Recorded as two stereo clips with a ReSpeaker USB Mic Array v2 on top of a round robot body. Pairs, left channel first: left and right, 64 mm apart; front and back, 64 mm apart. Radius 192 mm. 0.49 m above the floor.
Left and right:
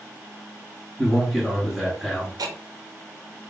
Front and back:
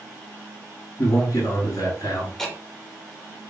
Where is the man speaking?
5° right, 1.7 m.